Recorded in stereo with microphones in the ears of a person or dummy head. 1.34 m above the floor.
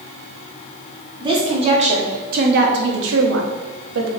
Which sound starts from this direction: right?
A woman speaking, at 1.2 s.